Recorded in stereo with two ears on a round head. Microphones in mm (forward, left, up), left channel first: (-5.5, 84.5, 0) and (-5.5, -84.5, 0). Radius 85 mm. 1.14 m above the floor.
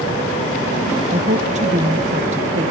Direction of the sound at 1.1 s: 40° right (ahead or behind).